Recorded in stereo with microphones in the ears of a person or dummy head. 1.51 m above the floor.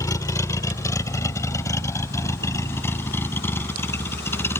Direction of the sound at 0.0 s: 20° left (ahead or behind).